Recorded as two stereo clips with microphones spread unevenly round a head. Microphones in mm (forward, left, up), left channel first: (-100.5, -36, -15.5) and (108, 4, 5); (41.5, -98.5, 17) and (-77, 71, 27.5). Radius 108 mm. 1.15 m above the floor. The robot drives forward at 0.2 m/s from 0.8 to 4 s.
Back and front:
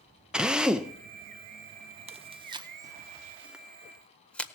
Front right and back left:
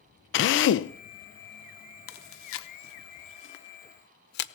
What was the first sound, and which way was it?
A drill, 75° right.